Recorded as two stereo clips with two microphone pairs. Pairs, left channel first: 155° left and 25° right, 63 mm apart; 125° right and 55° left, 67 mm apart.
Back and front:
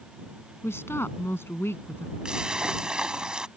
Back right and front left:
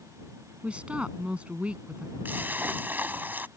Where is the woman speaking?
125° left.